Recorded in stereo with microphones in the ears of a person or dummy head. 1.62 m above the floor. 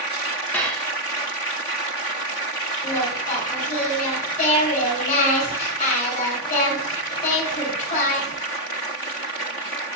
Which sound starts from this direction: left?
Singing, at 2.8 s.